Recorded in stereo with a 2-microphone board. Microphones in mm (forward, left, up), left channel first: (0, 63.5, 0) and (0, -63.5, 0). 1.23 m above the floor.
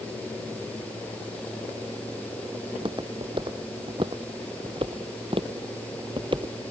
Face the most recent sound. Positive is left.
turn(degrees=-40)  # may be behind; listen again after turning